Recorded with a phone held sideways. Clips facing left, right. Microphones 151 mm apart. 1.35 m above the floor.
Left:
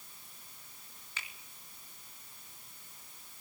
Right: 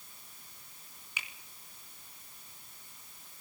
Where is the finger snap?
15° right (ahead or behind), 3 m.